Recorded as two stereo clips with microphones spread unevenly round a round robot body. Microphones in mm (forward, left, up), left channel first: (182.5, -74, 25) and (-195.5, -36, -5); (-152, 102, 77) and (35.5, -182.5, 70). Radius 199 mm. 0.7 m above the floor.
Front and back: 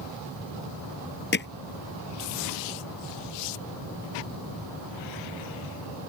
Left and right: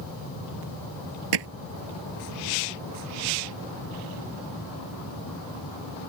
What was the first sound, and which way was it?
Hammering, 70° right.